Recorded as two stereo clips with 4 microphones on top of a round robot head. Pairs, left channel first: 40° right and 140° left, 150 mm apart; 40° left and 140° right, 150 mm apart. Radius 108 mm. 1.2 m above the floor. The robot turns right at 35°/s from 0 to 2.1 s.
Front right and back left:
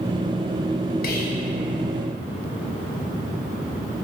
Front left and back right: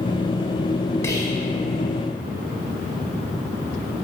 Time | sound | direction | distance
1.0 | whispering | 35° right | 0.5 m